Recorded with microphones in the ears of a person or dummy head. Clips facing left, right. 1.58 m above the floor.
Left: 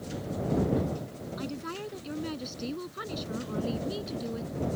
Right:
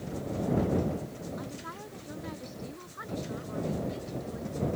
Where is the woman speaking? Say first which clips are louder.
Left 5 dB; 40° left (ahead or behind); by 4.5 s 50° left (ahead or behind).